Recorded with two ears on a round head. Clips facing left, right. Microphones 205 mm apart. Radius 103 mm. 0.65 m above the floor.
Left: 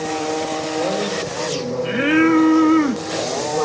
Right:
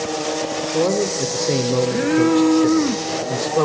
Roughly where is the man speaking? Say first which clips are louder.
Right 5 dB; right.